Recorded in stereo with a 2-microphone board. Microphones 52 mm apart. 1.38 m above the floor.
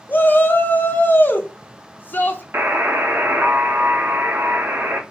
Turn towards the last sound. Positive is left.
turn(degrees=-45)  # may be behind; listen again after turning